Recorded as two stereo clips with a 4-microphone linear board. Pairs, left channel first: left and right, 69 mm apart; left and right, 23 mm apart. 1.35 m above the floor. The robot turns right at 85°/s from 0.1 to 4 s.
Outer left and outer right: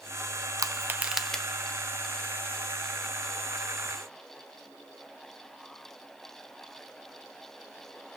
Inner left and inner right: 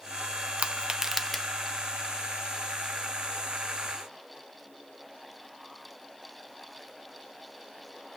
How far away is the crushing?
About 0.6 m.